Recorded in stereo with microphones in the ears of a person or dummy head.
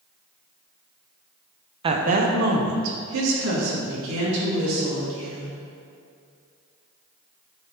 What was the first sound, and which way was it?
A woman speaking, 30° right (ahead or behind).